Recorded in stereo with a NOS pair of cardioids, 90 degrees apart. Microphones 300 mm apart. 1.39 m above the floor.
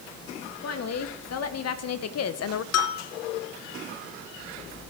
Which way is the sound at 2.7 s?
60° left.